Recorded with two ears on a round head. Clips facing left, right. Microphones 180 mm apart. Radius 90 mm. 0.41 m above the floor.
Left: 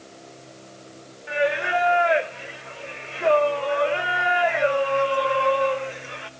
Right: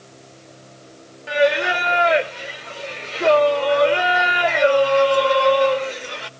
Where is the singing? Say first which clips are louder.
Right 5 dB; 45° right (ahead or behind), 0.6 m.